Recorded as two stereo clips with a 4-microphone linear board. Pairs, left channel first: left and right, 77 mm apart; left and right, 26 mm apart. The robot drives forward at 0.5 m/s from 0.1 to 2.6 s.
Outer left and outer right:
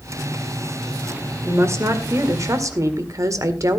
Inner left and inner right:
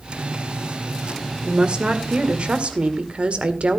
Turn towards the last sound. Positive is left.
turn(degrees=-50)  # may be behind; listen again after turning